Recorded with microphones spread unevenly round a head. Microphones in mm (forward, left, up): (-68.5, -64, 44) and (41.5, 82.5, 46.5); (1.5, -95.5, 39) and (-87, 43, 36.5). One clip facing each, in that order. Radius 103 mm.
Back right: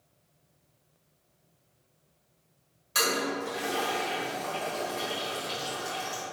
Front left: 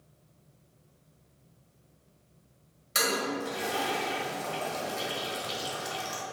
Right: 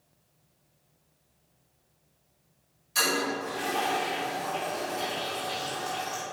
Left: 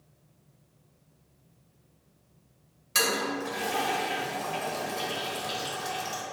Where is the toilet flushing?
120° left, 1.8 m.